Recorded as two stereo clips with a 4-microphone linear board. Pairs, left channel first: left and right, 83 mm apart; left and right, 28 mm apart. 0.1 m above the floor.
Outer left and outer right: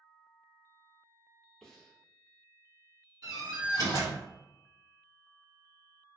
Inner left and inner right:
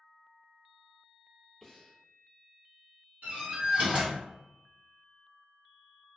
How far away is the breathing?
About 0.6 m.